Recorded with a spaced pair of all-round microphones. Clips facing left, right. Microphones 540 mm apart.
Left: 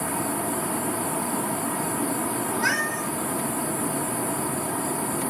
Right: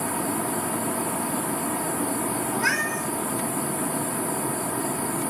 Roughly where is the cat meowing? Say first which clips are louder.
Even; left.